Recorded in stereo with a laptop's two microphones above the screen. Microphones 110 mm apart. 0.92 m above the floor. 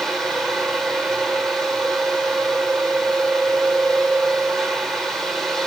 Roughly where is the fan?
Centre.